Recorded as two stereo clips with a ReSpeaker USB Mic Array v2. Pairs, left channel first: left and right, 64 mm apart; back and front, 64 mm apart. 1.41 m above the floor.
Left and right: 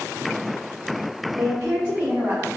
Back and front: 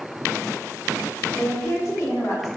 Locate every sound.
1.4 s a woman speaking: 105° right, 0.5 m; by 2.5 s 155° right, 1.0 m